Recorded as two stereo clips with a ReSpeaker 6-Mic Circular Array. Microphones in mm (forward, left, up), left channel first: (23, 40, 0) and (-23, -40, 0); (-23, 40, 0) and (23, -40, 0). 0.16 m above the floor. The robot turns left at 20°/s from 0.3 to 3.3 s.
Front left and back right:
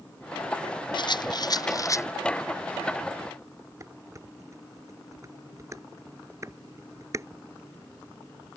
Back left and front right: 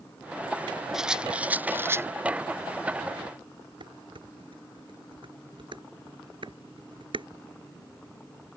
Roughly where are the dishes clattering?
Right.